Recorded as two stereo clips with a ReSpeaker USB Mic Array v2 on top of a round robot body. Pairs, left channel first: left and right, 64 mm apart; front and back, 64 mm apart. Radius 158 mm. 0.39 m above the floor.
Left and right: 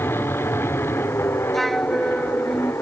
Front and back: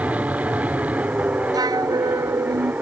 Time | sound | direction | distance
0.0 | an aircraft | 125° left | ?
1.5 | a flute | straight behind | ?